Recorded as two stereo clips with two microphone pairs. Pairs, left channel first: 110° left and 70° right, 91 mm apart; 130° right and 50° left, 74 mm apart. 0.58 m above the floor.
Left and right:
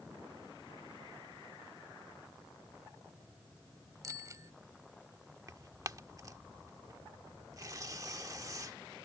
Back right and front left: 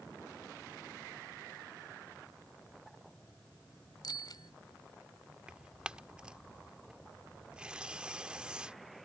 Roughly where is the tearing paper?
Ahead right.